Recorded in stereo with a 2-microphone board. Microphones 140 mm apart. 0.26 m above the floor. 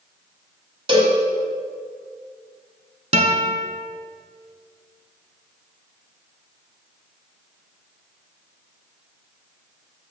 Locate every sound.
0.9 s a cowbell: 35° right (ahead or behind), 1.6 m
3.1 s a guitar: 50° right (ahead or behind), 1.0 m